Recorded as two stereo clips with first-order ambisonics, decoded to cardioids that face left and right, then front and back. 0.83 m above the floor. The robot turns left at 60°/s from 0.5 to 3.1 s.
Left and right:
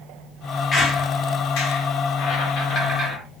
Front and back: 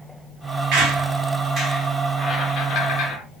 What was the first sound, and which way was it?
A squeak, 155° left.